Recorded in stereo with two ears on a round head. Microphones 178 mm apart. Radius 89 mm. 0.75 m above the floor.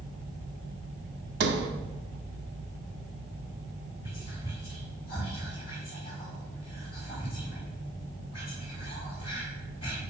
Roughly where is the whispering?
Left.